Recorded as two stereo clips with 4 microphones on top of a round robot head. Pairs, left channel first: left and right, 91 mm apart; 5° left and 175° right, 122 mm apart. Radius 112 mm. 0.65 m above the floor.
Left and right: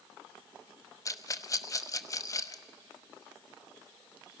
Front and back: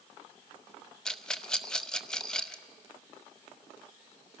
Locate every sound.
1.1 s a rattle: 85° left, 1.2 m